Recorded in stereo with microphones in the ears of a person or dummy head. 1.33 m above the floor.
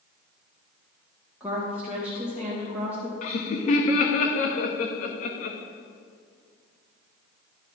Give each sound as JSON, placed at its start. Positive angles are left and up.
{"t": 1.4, "sound": "a woman speaking", "side_deg": -10, "distance_m": 1.5}
{"t": 3.2, "sound": "laughter", "side_deg": 45, "distance_m": 1.3}